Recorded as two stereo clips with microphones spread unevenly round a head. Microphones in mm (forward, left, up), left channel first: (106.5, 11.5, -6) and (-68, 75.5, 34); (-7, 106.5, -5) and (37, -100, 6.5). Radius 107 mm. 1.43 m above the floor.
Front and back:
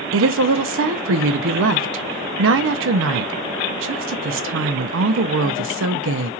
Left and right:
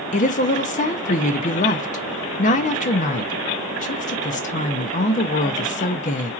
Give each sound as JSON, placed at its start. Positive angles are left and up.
{"t": 0.1, "sound": "a woman speaking", "azimuth_deg": 160, "distance_m": 0.5}